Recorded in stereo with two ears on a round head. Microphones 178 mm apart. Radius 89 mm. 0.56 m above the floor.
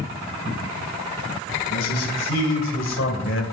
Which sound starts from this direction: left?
A man speaking, at 1.7 s.